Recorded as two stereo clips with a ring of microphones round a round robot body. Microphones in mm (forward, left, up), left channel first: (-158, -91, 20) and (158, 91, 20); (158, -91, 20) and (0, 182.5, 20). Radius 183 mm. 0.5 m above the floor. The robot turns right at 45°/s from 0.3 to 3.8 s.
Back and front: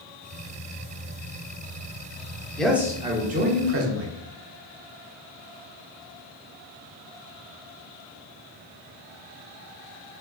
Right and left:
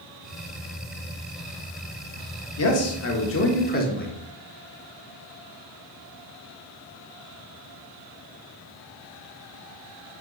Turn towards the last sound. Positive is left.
turn(degrees=-10)